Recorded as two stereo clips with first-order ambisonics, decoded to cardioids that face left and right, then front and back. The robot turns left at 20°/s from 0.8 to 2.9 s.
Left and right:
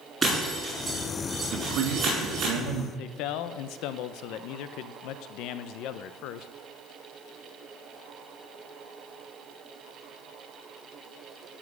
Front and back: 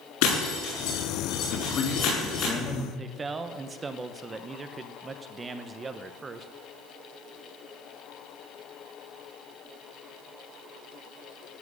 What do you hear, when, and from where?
0.2 s breaking glass: 10° right, 7.5 m; by 2.5 s 45° right, 7.5 m
1.5 s a man speaking: 45° right, 2.5 m; by 2.9 s 70° right, 2.5 m
3.0 s a man speaking: 110° left, 0.7 m